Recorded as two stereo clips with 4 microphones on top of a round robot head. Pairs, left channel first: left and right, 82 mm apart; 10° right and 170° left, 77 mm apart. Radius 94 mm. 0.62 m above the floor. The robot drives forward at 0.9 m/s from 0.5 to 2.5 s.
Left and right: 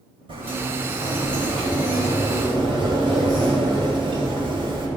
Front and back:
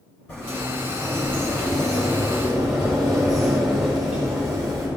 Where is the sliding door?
75° right, 4 m; by 4.9 s 105° right, 4 m.